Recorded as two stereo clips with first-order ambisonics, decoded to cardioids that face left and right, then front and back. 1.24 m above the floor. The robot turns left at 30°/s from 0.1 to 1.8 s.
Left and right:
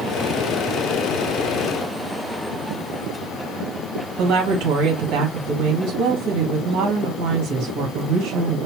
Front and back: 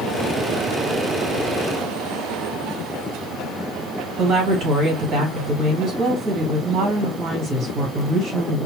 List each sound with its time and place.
4.2 s a woman speaking: 120° right, 2.0 m